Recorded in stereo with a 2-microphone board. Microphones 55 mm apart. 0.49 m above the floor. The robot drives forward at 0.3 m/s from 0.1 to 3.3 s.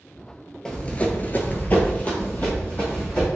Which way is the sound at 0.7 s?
15° left (ahead or behind).